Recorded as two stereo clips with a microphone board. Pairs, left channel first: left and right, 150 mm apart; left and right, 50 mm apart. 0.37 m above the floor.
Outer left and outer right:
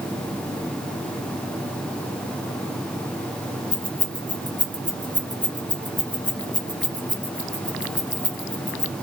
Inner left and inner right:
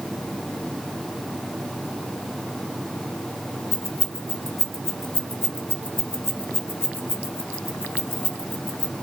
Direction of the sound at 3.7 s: 55° left (ahead or behind).